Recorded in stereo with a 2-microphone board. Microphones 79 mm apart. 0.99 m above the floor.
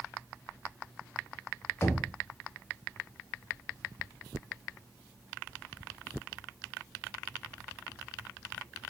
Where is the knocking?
35° left (ahead or behind), 0.5 m.